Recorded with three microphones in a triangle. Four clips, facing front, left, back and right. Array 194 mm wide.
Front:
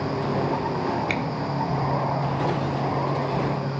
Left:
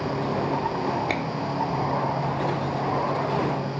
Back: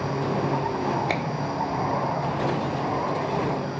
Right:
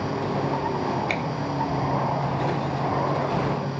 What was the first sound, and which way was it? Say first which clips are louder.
A finger snap: left 1 dB, even; 150° left.